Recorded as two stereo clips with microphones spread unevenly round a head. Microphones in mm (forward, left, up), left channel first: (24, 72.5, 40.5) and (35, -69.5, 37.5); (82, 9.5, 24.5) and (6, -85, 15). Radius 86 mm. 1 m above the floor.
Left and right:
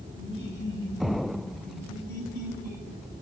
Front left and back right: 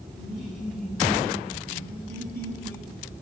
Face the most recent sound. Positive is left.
turn(degrees=80)